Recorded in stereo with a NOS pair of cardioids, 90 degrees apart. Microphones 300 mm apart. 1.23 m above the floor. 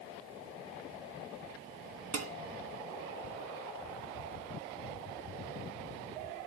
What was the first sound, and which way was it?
Dishes clattering, 55° right.